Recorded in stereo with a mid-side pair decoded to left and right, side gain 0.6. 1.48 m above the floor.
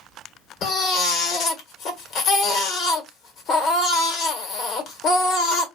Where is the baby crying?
60° left, 1.1 m.